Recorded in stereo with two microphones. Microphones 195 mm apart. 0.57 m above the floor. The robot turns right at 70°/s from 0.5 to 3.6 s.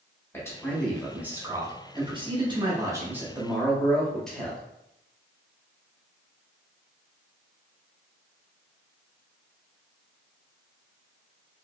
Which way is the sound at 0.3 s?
15° left (ahead or behind).